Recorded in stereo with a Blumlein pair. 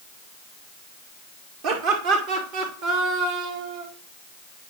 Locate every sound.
1.6 s laughter: 45° right, 2.5 m